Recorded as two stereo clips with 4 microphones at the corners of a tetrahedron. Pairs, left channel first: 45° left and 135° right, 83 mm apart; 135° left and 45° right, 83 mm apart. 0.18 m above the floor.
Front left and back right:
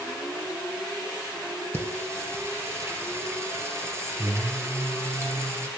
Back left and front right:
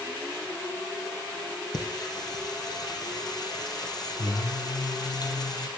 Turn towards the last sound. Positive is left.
turn(degrees=170)